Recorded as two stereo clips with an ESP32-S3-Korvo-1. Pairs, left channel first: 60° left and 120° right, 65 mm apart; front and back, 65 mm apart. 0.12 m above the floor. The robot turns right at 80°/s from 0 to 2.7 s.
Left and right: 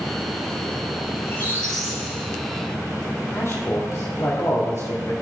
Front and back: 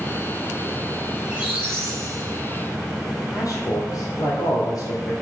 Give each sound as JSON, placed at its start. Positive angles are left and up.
{"t": 1.2, "sound": "a squeak", "azimuth_deg": 100, "distance_m": 2.0}
{"t": 3.3, "sound": "a man speaking", "azimuth_deg": 25, "distance_m": 2.5}